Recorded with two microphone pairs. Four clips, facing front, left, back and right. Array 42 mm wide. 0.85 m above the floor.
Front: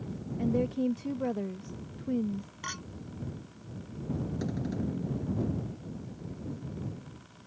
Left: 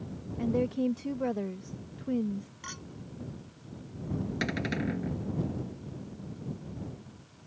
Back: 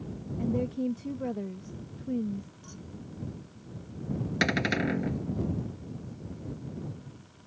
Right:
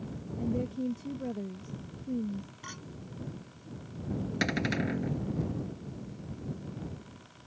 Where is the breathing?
No breathing in this recording.